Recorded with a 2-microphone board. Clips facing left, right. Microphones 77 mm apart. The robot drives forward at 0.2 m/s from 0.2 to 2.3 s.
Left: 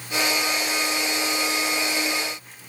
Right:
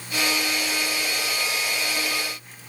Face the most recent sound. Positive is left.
No sound to turn to.